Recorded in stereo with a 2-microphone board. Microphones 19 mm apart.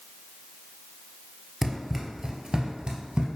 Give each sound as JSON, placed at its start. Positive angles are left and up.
{"t": 1.6, "sound": "running footsteps", "side_deg": -5, "distance_m": 0.8}